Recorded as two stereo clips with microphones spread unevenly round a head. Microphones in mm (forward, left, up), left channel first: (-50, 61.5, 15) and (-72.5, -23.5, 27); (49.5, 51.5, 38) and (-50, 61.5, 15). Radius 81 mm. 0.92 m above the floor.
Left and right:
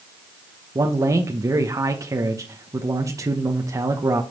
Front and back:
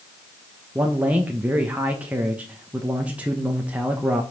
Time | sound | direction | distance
0.8 | a man speaking | 140° right | 1.1 m